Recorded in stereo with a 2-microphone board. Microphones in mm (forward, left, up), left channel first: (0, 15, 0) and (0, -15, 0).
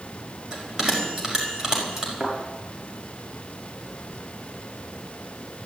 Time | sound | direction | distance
0.5 | a bell | 15° right (ahead or behind) | 5 m
2.2 | a thud | 20° right (ahead or behind) | 7 m